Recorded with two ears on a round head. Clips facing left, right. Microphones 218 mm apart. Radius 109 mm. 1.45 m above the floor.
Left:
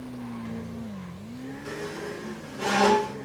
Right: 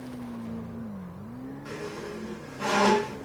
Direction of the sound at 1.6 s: 50° left (ahead or behind).